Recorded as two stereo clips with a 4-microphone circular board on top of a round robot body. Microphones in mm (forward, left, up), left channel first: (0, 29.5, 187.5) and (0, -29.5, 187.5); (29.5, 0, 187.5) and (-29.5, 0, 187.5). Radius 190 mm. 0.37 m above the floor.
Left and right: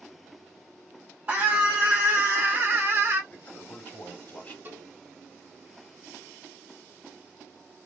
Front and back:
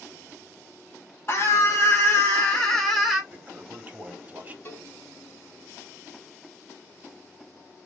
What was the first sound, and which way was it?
A scream, 35° right.